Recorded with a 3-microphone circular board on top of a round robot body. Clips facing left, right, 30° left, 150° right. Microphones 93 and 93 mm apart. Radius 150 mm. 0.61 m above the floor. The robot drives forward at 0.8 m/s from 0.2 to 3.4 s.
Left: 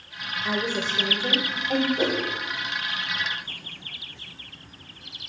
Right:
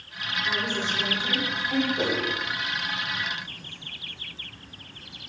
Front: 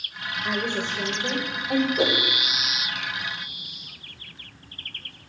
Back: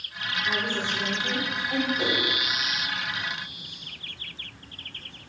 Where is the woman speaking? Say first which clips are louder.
Left 3 dB, front 2 dB; 40° left, 3 m; by 1.9 s 60° left, 2.5 m.